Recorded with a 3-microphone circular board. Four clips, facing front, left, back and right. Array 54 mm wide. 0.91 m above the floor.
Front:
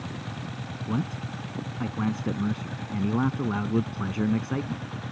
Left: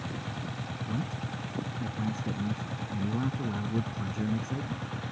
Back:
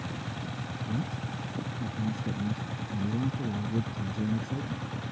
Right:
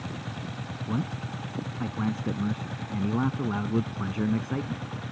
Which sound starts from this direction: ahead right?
A man speaking, at 0.9 s.